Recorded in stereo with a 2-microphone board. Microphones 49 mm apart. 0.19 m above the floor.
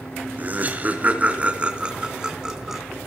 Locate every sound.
0.4 s laughter: 35° right (ahead or behind), 3 m; by 2.8 s 10° right (ahead or behind), 1.8 m